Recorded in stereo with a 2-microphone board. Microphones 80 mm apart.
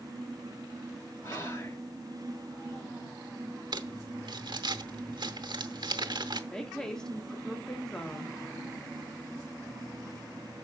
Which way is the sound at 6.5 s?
5° left (ahead or behind).